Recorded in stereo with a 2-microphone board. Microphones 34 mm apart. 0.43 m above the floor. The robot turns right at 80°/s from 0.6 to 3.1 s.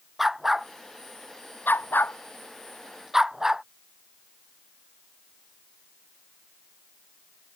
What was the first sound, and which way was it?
A dog barking, 5° right (ahead or behind).